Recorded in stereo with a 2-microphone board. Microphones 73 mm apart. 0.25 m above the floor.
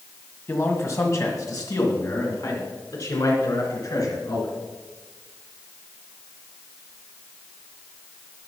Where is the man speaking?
35° left (ahead or behind), 1.9 m; by 4.5 s 55° left (ahead or behind), 4 m.